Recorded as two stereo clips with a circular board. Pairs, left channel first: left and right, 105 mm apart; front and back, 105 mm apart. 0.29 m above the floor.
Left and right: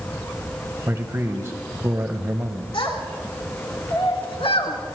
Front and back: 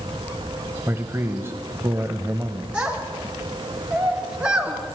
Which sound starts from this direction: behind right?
A man speaking, at 0.9 s.